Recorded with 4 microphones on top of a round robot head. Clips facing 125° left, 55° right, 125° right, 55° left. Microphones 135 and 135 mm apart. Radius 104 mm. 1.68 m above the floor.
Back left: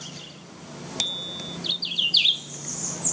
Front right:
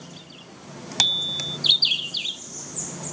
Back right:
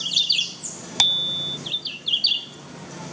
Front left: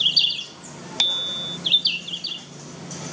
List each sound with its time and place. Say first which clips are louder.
1.0 s a bicycle bell: front right 3 dB, back right 2 dB; 80° right